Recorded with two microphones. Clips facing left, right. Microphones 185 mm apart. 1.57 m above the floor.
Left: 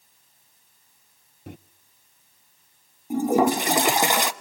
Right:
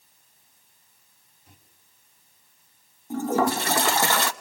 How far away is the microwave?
About 0.6 m.